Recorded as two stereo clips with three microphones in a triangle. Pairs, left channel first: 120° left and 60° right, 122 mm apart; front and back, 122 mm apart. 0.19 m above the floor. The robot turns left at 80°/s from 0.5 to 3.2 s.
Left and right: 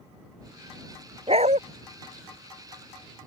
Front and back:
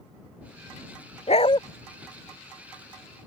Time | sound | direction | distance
1.3 | a dog barking | 25° right | ?